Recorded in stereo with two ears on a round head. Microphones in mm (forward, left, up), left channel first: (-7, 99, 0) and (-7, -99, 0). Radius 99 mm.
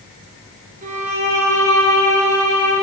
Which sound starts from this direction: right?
A violin, at 0.8 s.